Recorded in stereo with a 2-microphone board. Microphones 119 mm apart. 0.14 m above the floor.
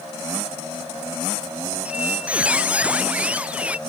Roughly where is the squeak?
Centre.